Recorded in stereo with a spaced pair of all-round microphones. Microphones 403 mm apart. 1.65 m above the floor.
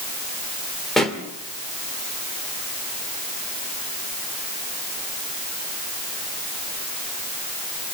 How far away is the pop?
About 2.5 m.